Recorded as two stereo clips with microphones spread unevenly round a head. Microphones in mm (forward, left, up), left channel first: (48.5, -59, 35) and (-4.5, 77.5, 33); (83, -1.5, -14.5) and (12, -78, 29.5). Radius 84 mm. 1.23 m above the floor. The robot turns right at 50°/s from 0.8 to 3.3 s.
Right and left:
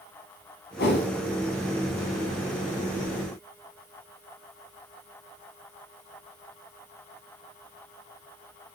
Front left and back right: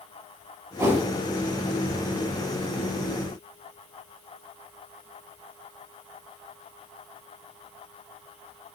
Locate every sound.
0.8 s a whoosh: 65° right, 7 m; by 1.1 s 50° right, 7 m